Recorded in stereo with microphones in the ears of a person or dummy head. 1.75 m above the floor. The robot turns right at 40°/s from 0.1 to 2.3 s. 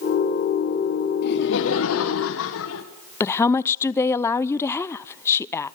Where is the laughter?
60° left, 1.6 m; by 2.9 s 105° left, 1.6 m.